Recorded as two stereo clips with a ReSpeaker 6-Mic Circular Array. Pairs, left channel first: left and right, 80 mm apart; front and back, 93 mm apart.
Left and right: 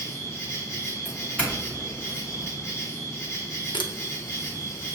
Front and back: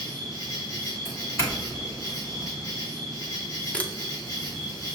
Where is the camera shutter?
75° left, 0.6 m.